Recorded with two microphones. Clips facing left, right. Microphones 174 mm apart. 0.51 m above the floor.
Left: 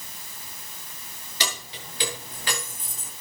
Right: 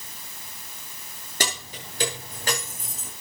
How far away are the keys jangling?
About 6.5 m.